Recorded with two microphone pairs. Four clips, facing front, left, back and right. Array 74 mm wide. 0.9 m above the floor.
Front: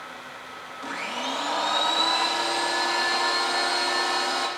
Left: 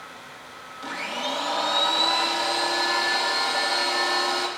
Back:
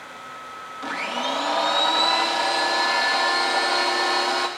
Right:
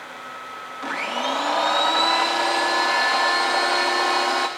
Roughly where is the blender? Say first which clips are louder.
Right 5 dB, back 4 dB; behind right.